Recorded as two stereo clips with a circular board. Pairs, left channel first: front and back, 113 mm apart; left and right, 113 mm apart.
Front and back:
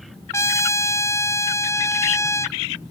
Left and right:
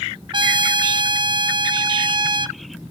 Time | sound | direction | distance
0.3 | a trumpet | 60° right | 0.6 m